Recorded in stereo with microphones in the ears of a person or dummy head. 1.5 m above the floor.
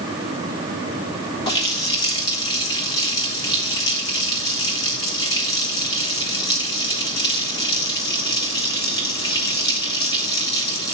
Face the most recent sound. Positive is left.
turn(degrees=20)  # may be behind; listen again after turning